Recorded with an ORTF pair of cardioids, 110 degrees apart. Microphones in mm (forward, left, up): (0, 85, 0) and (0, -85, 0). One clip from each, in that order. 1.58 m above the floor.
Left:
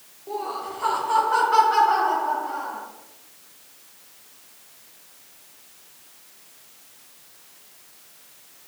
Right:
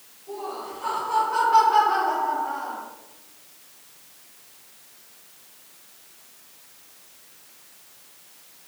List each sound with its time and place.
0.3 s laughter: 60° left, 1.7 m; by 2.8 s 5° right, 1.4 m